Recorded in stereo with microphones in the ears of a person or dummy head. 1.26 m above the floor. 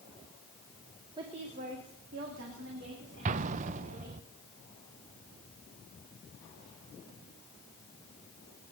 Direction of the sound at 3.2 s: 45° right (ahead or behind).